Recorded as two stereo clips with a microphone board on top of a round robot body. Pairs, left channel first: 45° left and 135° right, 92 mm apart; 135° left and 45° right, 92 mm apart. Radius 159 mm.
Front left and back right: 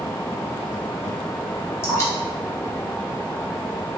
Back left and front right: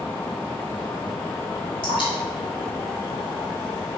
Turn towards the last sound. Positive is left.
turn(degrees=105)